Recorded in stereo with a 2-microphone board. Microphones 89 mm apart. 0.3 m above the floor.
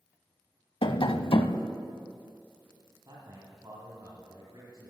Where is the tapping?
70° left (ahead or behind), 0.5 m.